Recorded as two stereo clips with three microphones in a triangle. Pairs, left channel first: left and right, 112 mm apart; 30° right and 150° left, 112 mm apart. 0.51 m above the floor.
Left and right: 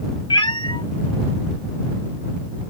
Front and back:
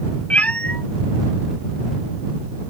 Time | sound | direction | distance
0.3 | a cat meowing | 45° left | ?